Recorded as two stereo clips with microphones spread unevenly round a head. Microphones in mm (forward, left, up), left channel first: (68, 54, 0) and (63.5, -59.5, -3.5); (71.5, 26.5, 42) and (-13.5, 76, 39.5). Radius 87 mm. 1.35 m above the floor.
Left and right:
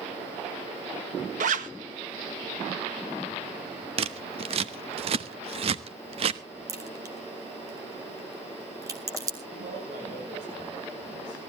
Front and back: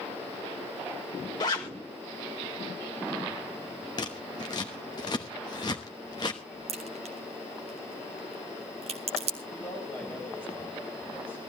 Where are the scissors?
90° right, 0.8 m.